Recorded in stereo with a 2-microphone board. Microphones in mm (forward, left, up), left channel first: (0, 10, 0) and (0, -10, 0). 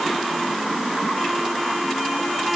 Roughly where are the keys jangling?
I don't hear keys jangling.